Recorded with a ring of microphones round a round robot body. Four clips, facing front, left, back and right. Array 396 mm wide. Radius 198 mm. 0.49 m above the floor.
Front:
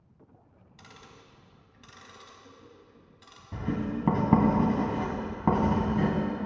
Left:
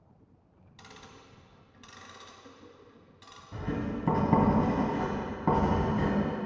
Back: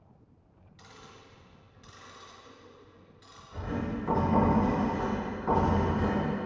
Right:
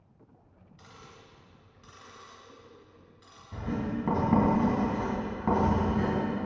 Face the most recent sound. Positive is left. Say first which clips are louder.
# right 1 dB, front 3 dB
turn(degrees=5)